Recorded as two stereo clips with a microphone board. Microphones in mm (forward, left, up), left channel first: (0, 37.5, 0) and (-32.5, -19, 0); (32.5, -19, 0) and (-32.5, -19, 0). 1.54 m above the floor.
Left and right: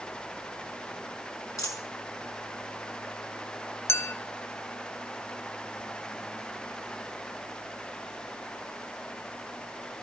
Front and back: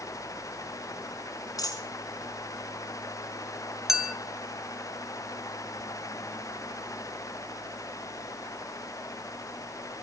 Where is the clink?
100° left, 0.9 m.